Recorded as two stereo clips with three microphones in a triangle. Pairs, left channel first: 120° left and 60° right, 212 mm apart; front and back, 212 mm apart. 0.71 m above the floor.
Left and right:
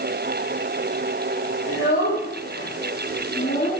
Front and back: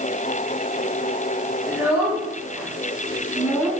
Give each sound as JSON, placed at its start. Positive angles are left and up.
{"t": 1.7, "sound": "a child speaking", "azimuth_deg": 100, "distance_m": 4.5}